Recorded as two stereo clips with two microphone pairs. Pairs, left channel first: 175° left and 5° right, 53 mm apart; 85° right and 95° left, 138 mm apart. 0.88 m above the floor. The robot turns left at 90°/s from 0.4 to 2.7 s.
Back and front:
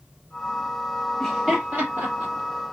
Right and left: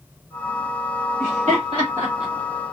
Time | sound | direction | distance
1.2 | laughter | 110° left | 1.0 m